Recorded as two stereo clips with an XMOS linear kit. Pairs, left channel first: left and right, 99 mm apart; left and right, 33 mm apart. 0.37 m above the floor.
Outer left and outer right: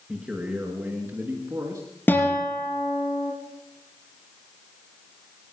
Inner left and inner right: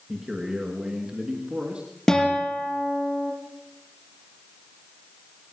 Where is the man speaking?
15° right (ahead or behind), 5 m; by 1.9 s 40° right (ahead or behind), 3 m.